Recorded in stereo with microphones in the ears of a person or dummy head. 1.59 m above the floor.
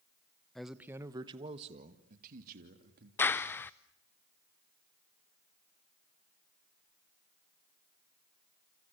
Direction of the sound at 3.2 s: 10° left (ahead or behind).